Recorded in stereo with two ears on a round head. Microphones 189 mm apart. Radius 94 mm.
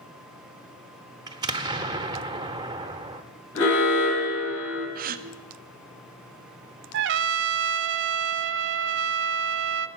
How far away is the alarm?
About 6.5 m.